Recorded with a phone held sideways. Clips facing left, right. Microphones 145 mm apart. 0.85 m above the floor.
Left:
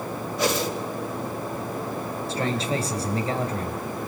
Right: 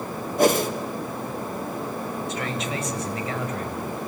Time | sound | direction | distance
0.4 | a whoosh | 50° right (ahead or behind) | 2.0 m
2.3 | a man speaking | 35° left (ahead or behind) | 3.5 m